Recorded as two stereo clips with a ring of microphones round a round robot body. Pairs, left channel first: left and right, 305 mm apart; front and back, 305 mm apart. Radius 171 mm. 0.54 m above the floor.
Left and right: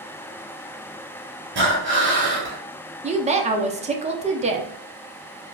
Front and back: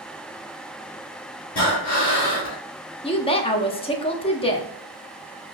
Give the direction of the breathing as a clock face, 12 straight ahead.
1 o'clock.